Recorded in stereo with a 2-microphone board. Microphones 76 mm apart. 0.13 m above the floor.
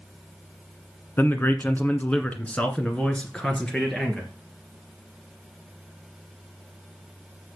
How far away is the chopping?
I don't hear chopping.